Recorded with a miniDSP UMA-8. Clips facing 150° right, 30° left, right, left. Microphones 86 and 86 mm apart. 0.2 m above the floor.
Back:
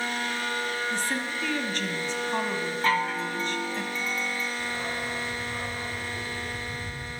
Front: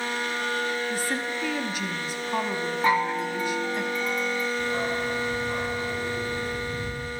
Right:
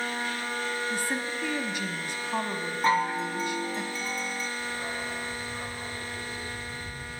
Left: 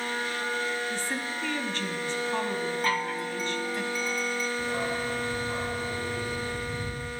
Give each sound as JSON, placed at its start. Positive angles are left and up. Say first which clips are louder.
{"t": 0.9, "sound": "a woman speaking", "louder": "front 1 dB, right 1 dB", "azimuth_deg": -35, "distance_m": 1.0}
{"t": 2.8, "sound": "a chime", "louder": "front 3 dB, right 4 dB", "azimuth_deg": -35, "distance_m": 0.7}
{"t": 4.6, "sound": "a dog barking", "louder": "front 5 dB, left 4 dB", "azimuth_deg": 80, "distance_m": 3.0}